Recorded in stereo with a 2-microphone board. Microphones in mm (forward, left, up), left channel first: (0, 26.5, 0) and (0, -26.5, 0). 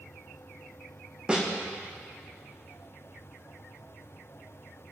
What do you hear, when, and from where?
1.3 s a snare drum: 20° right (ahead or behind), 2.5 m